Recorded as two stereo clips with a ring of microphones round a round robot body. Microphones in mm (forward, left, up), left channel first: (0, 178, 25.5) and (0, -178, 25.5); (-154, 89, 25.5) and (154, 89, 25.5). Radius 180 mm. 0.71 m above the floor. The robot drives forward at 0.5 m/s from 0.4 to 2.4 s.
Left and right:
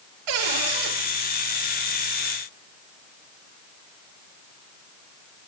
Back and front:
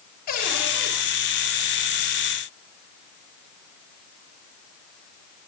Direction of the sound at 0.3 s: 110° right.